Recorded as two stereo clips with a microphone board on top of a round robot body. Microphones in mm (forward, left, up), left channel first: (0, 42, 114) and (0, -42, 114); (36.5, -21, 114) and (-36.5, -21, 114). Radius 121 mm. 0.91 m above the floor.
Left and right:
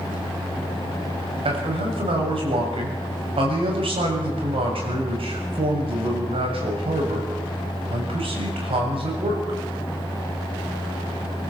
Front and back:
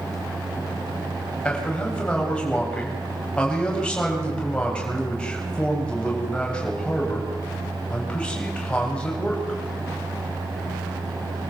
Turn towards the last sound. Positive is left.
turn(degrees=-75)